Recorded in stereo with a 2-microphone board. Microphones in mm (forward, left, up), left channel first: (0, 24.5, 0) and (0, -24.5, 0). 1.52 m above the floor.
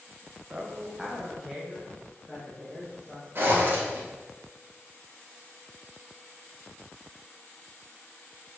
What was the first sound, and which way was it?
A man speaking, 30° right (ahead or behind).